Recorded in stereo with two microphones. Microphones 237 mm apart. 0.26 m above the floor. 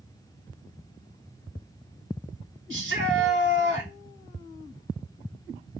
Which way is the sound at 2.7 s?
55° right (ahead or behind).